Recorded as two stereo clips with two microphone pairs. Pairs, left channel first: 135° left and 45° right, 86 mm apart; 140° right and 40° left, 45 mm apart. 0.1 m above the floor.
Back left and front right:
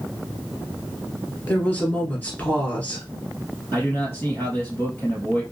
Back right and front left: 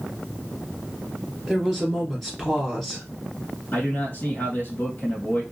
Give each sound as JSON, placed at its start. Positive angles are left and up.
{"t": 1.5, "sound": "a woman speaking", "azimuth_deg": 140, "distance_m": 1.5}
{"t": 3.7, "sound": "a man speaking", "azimuth_deg": -170, "distance_m": 2.5}